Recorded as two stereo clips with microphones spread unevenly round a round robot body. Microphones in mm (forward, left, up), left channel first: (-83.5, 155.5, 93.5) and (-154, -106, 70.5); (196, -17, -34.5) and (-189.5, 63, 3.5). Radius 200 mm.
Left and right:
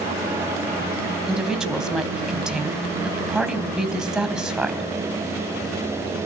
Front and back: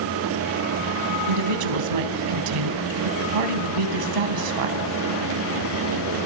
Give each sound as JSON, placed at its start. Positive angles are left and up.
{"t": 1.3, "sound": "a woman speaking", "azimuth_deg": 165, "distance_m": 3.5}